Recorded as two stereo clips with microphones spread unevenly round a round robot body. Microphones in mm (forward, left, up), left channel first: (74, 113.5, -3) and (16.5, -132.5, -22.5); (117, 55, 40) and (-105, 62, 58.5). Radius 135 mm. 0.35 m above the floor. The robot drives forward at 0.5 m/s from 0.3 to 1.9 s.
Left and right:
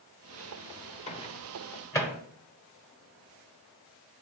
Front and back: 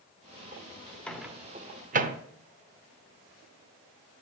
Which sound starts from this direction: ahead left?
A microwave, at 1.1 s.